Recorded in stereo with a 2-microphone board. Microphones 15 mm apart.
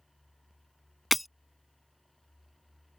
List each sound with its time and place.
1.1 s breaking glass: 5° right (ahead or behind)